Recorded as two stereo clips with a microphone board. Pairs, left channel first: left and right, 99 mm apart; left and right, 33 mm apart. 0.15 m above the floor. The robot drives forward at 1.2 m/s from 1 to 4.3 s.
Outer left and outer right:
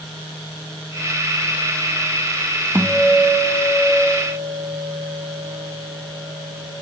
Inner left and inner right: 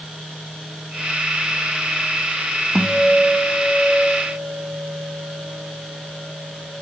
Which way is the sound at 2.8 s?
20° right (ahead or behind).